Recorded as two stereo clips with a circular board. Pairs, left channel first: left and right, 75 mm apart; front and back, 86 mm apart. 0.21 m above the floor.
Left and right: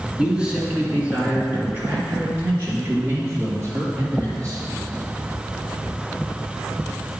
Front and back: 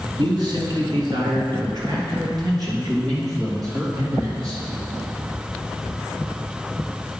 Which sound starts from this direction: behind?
A man speaking, at 0.2 s.